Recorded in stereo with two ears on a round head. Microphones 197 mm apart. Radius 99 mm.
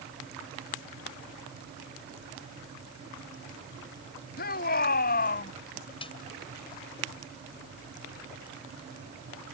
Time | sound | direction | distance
4.4 | a shout | 45° left (ahead or behind) | ?
6.0 | a snare drum | 25° left (ahead or behind) | ?